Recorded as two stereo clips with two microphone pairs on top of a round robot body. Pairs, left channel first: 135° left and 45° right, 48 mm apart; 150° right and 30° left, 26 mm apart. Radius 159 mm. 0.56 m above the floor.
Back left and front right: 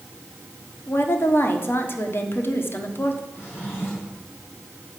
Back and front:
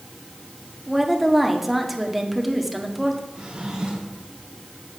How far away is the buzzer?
No buzzer in this recording.